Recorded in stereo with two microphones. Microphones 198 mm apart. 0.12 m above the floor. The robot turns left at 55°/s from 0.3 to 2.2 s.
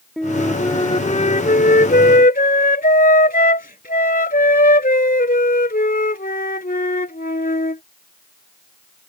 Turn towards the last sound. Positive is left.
turn(degrees=75)